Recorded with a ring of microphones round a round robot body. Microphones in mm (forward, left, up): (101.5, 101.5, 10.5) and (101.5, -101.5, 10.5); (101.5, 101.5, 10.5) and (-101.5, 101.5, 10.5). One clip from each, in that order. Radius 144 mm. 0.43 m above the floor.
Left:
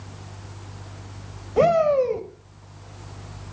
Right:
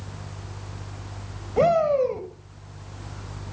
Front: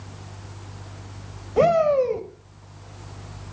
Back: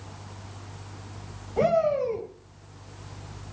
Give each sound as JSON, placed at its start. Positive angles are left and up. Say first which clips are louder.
{"t": 1.6, "sound": "a shout", "louder": "left 2 dB, front 5 dB", "azimuth_deg": 25, "distance_m": 1.8}